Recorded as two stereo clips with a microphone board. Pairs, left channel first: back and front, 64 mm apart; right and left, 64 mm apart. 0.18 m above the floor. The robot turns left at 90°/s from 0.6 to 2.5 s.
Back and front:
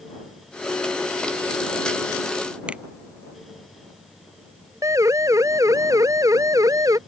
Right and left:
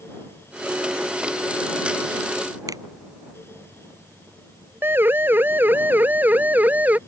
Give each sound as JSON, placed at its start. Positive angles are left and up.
{"t": 2.7, "sound": "a finger snap", "azimuth_deg": 75}
{"t": 4.8, "sound": "a siren", "azimuth_deg": 35}